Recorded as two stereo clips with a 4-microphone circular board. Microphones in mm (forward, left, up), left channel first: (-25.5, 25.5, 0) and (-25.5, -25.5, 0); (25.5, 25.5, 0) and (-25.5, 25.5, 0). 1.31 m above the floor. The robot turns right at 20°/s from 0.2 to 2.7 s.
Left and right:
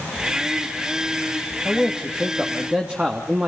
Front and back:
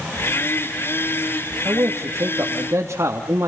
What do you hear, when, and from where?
1.6 s a man speaking: straight behind, 2.5 m; by 3.5 s 160° right, 2.5 m